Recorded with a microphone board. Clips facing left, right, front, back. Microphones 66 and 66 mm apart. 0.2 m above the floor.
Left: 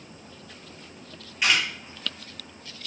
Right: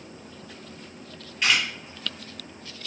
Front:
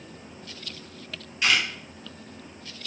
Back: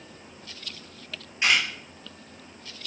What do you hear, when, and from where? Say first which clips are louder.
1.4 s a camera shutter: even, even; 165° left, 1.5 m